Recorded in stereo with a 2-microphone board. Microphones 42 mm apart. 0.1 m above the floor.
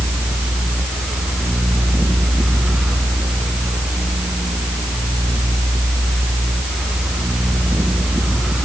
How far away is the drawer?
No drawer in this recording.